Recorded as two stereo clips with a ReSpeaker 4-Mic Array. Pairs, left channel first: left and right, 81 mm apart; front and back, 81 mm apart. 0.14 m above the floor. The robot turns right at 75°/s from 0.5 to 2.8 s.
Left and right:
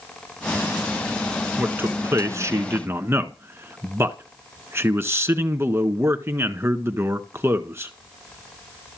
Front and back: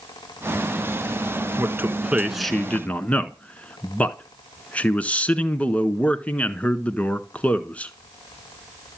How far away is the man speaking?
About 1.4 m.